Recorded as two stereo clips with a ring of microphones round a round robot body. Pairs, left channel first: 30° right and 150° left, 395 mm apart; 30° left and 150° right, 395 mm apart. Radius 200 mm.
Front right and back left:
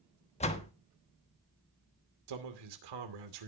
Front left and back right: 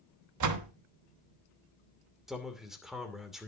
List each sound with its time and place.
0.4 s a door slam: 105° right, 1.2 m
2.3 s a man speaking: 120° left, 2.5 m